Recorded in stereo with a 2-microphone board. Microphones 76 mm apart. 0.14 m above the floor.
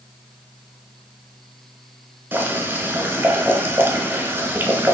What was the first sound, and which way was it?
Boiling, 25° right (ahead or behind).